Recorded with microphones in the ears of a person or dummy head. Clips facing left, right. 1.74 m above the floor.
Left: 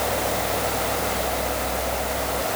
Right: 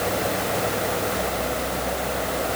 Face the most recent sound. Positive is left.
No sound to turn to.